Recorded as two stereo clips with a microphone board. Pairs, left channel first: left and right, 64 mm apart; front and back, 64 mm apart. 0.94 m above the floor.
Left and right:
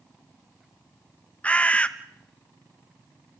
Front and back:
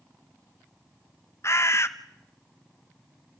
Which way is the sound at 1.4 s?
25° left.